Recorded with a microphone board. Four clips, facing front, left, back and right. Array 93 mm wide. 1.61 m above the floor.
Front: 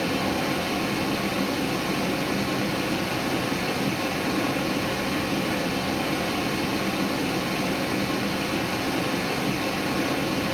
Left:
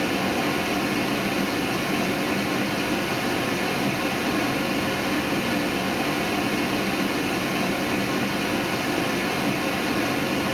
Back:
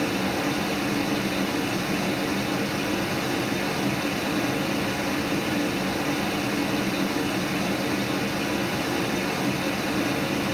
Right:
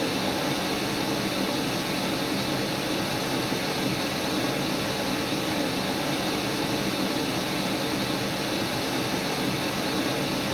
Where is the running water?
95° left, 1.1 m.